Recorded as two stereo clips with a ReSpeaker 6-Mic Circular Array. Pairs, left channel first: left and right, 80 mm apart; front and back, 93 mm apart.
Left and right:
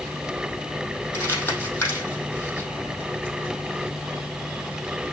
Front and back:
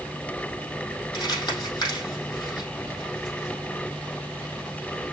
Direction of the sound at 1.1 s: 40° left.